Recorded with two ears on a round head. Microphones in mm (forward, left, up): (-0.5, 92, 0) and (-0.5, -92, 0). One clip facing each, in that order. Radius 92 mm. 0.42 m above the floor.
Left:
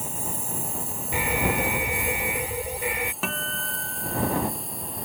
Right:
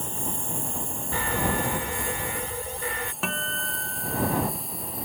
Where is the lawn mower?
5° left (ahead or behind); by 5.0 s centre (ahead or behind).